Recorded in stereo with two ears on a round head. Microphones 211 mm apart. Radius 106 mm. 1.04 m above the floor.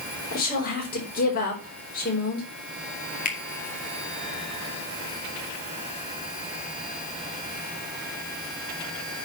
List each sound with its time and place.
0.3 s a woman speaking: 35° left (ahead or behind), 4 m
3.2 s a finger snap: 35° left (ahead or behind), 2 m